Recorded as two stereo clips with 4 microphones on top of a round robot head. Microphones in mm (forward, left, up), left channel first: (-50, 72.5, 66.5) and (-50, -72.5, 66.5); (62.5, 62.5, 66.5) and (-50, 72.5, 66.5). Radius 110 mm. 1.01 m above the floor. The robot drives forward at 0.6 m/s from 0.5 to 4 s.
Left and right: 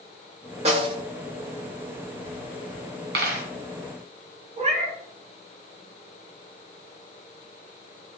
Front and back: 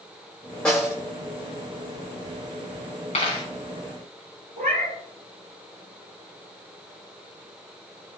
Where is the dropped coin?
60° right, 1.9 m; by 3.5 s 65° right, 1.8 m.